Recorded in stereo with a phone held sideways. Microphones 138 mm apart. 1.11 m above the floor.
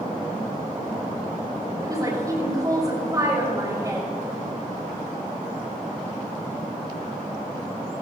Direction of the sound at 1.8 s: 25° right (ahead or behind).